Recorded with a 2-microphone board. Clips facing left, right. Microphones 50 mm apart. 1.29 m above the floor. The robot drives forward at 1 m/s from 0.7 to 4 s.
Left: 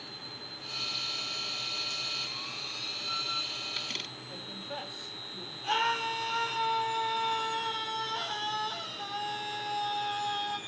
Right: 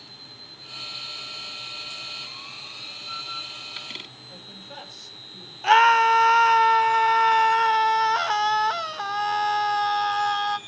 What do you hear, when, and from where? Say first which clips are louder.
4.3 s a woman speaking: left 3 dB; 10° left (ahead or behind), 5 m
5.6 s a scream: right 14 dB; 70° right (ahead or behind), 1.2 m